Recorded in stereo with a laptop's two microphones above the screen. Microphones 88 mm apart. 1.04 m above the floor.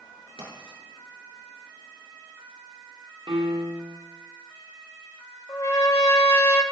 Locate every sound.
0.4 s writing: 80° right, 6 m
3.3 s a piano: 80° right, 1.4 m
5.5 s a trumpet: 40° left (ahead or behind), 1.6 m